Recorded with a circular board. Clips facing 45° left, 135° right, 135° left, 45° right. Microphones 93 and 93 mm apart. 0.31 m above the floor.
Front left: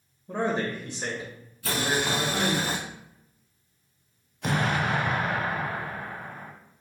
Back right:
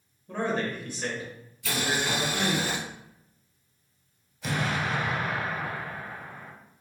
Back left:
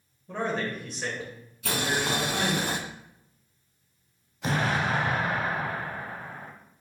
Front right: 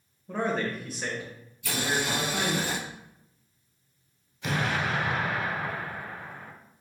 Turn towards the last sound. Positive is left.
turn(degrees=80)